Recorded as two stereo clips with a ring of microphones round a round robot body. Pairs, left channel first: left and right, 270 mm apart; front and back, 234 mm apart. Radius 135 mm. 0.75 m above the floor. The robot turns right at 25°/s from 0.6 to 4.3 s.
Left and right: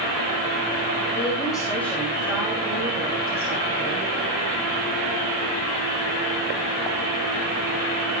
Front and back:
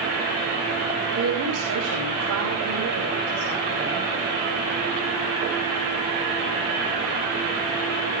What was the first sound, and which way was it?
A woman speaking, 155° left.